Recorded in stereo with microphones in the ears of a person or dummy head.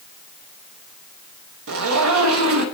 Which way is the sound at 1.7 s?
75° right (ahead or behind).